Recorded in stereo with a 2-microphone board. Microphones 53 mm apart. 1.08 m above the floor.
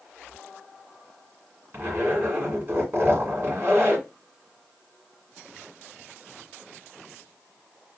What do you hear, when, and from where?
1.7 s a zipper: 40° right (ahead or behind), 2 m